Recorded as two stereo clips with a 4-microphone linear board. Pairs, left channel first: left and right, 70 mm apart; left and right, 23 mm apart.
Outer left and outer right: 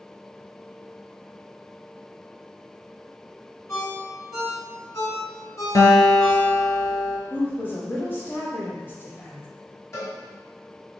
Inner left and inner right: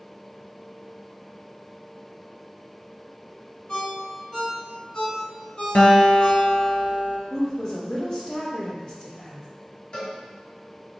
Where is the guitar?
60° left (ahead or behind), 1.0 m.